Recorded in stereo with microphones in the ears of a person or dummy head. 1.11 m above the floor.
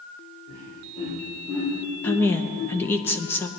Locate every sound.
0.5 s laughter: 35° left (ahead or behind), 4 m; by 2.8 s 80° left, 3.5 m
2.0 s a woman speaking: 10° left (ahead or behind), 0.8 m